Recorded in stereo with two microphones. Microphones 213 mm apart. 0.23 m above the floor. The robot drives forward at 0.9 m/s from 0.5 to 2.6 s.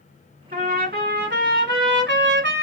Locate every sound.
0.5 s a trumpet: 40° right (ahead or behind), 2 m; by 2.6 s 60° right (ahead or behind), 1.5 m